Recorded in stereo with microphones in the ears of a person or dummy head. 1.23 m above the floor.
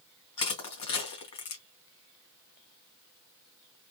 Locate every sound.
0.4 s crushing: 30° left (ahead or behind), 1.7 m